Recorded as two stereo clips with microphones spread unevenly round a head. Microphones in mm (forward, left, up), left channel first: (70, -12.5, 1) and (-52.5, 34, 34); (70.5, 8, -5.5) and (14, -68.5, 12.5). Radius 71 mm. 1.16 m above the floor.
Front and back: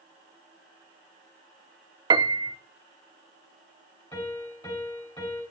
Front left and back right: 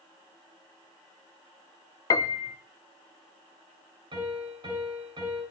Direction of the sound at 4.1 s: 95° right.